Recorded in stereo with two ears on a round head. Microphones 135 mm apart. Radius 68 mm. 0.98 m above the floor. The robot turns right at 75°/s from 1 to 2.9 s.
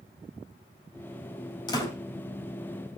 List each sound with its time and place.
1.7 s a door slam: 30° left (ahead or behind), 3.5 m; by 1.9 s 10° left (ahead or behind), 3.5 m